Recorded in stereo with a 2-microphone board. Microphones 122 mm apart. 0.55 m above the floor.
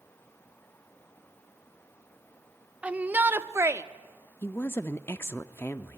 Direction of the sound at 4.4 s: 20° left (ahead or behind).